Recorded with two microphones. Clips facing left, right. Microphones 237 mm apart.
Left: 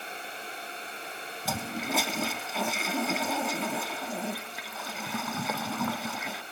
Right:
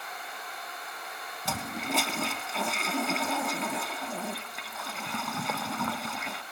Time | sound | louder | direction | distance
1.4 | a toilet flushing | left 1 dB | centre (ahead or behind) | 0.8 m